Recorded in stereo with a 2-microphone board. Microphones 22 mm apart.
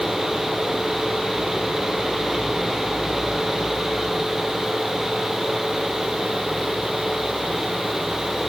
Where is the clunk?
I don't hear a clunk.